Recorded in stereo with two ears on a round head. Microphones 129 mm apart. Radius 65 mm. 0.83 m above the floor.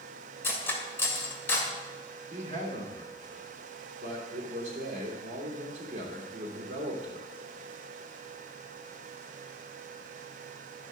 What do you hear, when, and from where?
0.4 s cutlery clinking: 15° left (ahead or behind), 1.8 m
2.3 s a man speaking: 55° right (ahead or behind), 3 m